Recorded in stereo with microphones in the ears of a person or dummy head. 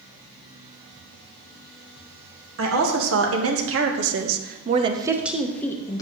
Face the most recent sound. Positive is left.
turn(degrees=15)  # may be behind; listen again after turning